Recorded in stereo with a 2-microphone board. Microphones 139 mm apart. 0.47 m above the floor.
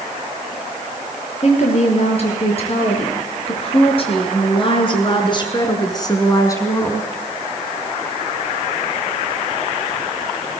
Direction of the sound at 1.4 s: 50° left (ahead or behind).